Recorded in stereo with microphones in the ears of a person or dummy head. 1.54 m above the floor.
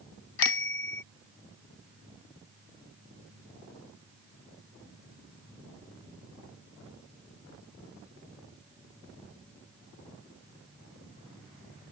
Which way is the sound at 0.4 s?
70° left (ahead or behind).